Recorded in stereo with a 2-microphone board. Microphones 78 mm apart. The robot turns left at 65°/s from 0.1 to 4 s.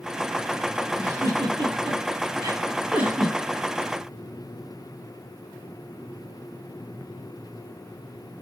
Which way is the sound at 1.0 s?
30° right (ahead or behind).